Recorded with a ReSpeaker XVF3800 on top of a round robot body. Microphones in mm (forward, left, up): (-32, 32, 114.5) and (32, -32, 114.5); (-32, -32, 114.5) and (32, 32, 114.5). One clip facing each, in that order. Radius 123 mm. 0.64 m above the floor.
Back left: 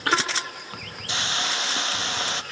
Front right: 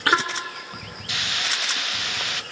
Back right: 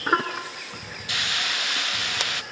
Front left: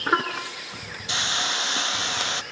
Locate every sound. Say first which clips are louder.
1.1 s a hiss: back left 2 dB, front left 2 dB; 90° left, 1.2 m